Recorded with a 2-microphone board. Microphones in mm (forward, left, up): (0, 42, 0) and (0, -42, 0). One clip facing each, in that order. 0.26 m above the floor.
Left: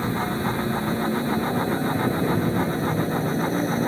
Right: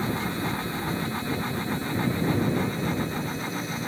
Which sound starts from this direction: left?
A helicopter, at 0.0 s.